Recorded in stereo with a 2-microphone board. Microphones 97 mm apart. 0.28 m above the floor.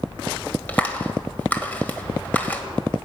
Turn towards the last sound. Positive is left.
turn(degrees=15)  # may be behind; listen again after turning